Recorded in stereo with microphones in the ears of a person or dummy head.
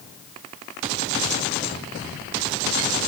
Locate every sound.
Only background noise.